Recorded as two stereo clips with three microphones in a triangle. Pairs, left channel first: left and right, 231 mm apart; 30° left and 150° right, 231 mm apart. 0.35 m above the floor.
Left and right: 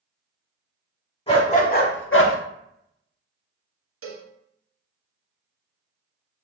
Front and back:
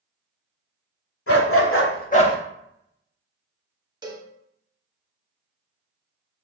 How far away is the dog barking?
About 1.0 m.